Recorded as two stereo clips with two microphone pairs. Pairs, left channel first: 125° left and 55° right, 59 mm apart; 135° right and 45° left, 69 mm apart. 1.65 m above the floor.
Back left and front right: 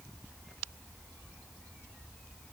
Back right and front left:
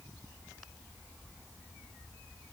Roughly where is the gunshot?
No gunshot in this recording.